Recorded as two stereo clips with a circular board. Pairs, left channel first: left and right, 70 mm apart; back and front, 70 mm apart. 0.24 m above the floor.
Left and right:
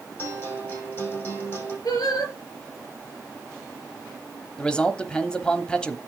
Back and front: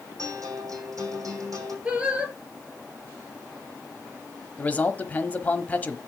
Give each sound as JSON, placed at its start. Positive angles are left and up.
{"t": 0.2, "sound": "a guitar", "azimuth_deg": 35, "distance_m": 5.0}
{"t": 1.9, "sound": "singing", "azimuth_deg": 70, "distance_m": 4.0}
{"t": 4.6, "sound": "a man speaking", "azimuth_deg": 150, "distance_m": 1.1}